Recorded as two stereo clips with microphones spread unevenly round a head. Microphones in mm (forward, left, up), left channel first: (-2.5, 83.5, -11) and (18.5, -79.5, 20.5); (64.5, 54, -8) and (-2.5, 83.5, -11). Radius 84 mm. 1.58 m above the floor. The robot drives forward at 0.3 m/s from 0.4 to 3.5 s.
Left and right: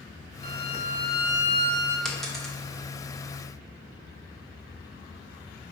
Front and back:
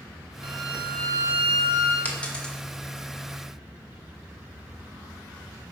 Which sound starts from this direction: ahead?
A dropped coin, at 2.0 s.